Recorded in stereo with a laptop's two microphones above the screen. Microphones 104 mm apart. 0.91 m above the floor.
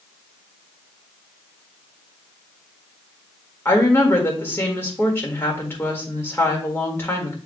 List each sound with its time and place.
3.6 s a woman speaking: 20° left (ahead or behind), 1.7 m